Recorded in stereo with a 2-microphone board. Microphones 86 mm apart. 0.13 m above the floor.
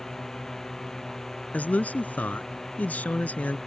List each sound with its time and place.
0.0 s a drone: 5° left (ahead or behind)
1.5 s a man speaking: 20° left (ahead or behind)